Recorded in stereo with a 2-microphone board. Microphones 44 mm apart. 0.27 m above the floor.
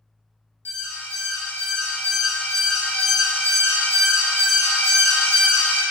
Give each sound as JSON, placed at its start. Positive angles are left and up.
{"t": 0.7, "sound": "an alarm", "side_deg": 55, "distance_m": 1.1}